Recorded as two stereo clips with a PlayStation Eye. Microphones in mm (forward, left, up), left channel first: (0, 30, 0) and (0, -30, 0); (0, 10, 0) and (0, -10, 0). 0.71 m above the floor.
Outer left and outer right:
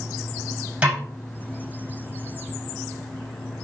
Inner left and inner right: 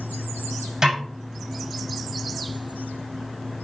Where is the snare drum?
20° right (ahead or behind), 5 m.